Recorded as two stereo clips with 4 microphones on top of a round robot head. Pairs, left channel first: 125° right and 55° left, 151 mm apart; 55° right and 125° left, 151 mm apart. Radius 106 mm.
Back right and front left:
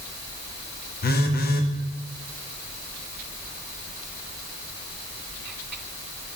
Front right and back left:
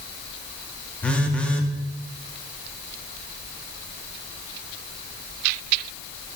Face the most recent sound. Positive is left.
turn(degrees=-135)